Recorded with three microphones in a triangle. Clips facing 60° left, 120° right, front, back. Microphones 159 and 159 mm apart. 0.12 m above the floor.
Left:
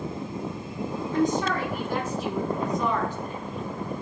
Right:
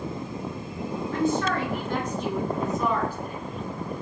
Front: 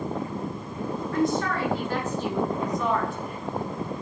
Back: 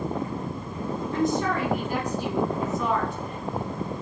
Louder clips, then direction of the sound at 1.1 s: Left 1 dB, even; 125° left.